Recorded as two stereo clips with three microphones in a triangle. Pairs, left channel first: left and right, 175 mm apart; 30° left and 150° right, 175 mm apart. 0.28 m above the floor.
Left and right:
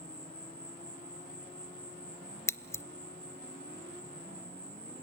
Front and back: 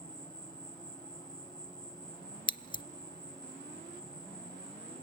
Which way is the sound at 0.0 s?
40° right.